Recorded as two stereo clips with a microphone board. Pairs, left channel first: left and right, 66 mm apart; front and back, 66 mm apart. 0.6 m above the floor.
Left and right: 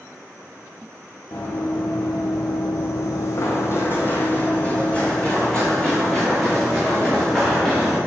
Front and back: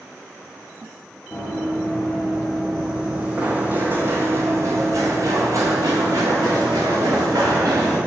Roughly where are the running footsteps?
Left.